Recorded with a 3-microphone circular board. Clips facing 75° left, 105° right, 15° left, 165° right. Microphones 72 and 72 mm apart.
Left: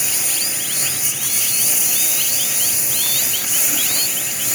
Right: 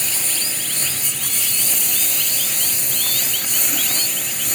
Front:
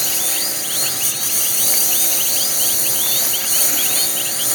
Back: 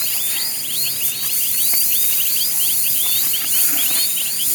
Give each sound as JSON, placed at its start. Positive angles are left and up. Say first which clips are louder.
{"t": 0.0, "sound": "a lawn mower", "louder": "left 1 dB, front 5 dB", "azimuth_deg": -5}